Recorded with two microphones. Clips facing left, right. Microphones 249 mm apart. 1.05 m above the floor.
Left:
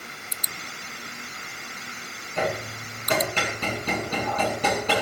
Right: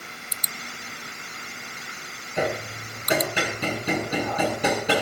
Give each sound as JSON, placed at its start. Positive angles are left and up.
{"t": 2.4, "sound": "hammering", "side_deg": -10, "distance_m": 8.5}